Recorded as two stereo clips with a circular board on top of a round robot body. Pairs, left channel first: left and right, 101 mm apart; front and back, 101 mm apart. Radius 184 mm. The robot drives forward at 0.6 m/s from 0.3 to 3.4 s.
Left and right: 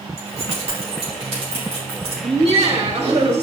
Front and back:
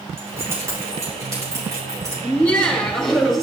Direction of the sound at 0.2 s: 115° right.